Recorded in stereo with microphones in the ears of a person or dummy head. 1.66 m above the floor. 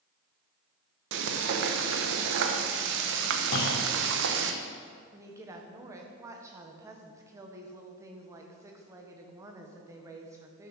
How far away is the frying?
About 1.1 m.